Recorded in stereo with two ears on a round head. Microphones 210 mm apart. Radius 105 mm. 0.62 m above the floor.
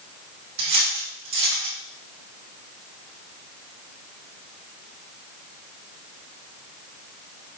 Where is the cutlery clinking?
55° right (ahead or behind), 2 m.